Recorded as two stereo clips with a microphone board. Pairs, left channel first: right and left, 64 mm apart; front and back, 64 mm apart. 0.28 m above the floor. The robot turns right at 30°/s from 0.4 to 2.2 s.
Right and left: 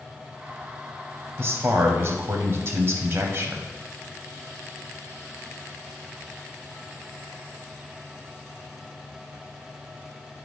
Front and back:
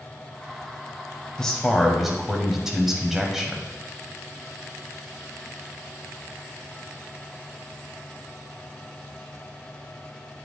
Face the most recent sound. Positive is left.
turn(degrees=100)